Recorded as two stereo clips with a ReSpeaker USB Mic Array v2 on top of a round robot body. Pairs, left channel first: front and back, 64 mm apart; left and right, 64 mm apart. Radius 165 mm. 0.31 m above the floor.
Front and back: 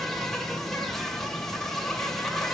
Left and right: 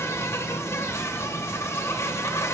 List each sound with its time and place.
0.0 s an insect: 85° left, 1.7 m